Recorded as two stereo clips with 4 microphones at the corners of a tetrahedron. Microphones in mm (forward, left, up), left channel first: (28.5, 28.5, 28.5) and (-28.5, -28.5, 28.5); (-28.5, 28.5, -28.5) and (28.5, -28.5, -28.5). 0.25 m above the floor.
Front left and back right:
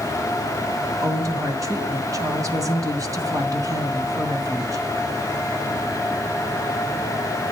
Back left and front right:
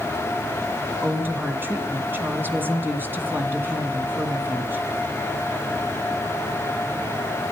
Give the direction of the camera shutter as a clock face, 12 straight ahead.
No camera shutter in this recording.